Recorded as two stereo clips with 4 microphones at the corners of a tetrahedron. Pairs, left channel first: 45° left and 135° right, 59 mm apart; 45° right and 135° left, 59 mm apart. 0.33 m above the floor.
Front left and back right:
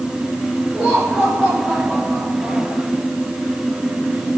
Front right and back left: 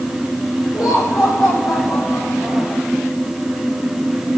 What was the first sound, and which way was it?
Laughter, 75° right.